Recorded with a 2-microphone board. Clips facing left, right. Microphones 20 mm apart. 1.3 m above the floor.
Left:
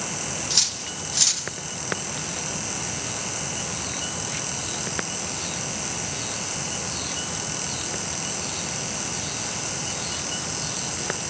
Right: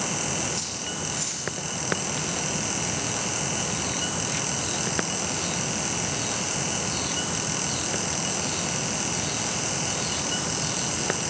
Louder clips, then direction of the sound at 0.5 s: Left 7 dB; 70° left (ahead or behind).